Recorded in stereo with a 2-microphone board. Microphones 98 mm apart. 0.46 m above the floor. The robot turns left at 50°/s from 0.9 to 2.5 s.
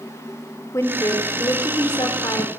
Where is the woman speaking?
135° left, 1.3 m; by 2.5 s 55° left, 1.3 m.